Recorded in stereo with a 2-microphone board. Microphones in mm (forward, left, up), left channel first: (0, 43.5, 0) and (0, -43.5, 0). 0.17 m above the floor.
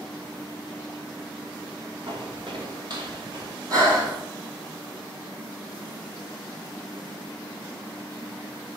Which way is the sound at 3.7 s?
45° right (ahead or behind).